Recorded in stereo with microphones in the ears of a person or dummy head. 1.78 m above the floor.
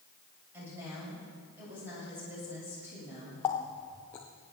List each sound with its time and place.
0.5 s a woman speaking: 15° right (ahead or behind), 8 m
3.4 s a running tap: 10° left (ahead or behind), 0.7 m